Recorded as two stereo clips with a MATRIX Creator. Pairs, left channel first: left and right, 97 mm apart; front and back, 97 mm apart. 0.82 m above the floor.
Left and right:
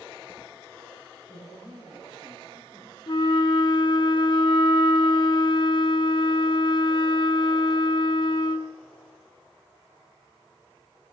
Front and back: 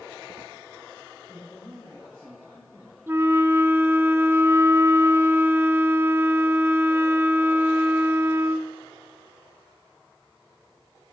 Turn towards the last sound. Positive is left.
turn(degrees=115)